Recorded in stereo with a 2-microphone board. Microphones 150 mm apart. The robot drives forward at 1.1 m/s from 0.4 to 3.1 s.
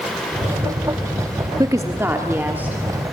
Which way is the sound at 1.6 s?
25° right (ahead or behind).